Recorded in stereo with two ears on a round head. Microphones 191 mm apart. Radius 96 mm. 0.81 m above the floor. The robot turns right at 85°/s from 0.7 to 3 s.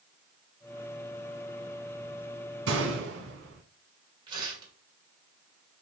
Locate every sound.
2.7 s a gunshot: 70° right (ahead or behind), 1.5 m; by 3.6 s 55° right (ahead or behind), 1.5 m
4.3 s tearing paper: 20° right (ahead or behind), 2.0 m